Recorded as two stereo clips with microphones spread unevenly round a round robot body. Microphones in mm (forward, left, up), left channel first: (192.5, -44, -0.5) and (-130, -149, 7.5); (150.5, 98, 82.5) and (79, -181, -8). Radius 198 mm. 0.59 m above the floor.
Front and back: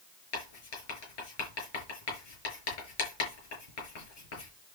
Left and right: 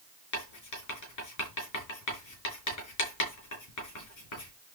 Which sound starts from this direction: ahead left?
Writing, at 0.3 s.